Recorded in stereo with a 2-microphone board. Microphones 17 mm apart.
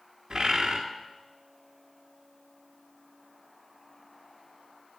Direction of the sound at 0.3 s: 65° right (ahead or behind).